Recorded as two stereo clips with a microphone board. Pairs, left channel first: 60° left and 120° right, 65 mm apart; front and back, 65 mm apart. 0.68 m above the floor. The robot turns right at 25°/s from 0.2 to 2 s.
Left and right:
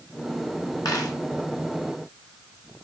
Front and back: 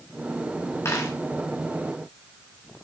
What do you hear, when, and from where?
0.8 s a dropped coin: 45° left, 3.5 m; by 1.1 s 55° left, 3.5 m